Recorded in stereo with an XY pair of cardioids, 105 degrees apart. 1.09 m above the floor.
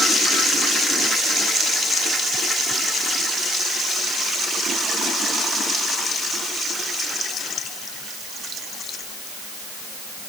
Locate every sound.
Only background noise.